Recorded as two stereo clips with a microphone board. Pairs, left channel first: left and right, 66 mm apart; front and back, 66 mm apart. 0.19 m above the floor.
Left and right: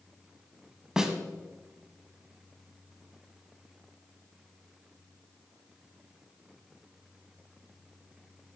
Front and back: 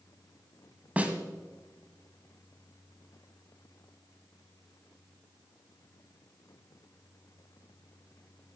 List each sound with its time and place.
1.0 s a snare drum: 155° right, 1.1 m